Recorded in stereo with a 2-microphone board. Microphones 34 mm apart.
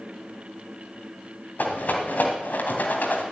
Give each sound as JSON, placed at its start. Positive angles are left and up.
{"t": 1.6, "sound": "a rattle", "side_deg": 65, "distance_m": 2.0}